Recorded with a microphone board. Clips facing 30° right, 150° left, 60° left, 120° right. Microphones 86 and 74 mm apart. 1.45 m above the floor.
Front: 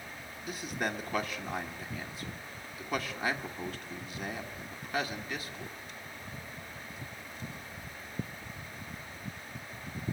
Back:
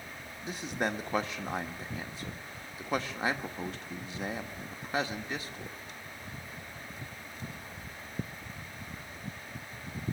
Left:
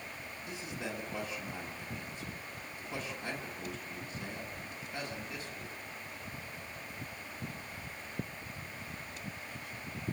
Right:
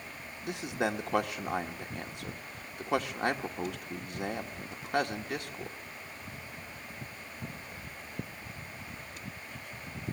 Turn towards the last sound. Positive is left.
turn(degrees=-150)